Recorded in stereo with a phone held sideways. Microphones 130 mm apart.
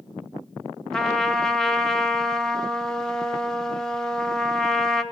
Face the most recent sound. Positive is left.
turn(degrees=5)  # may be behind; listen again after turning